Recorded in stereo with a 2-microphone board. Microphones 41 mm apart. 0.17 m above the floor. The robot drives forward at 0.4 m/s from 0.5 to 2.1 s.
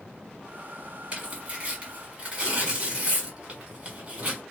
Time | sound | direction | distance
1.1 | tearing paper | 30° right (ahead or behind) | 1.4 m